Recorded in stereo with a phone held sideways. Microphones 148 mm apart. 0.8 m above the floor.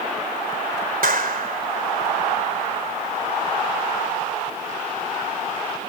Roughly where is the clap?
Right.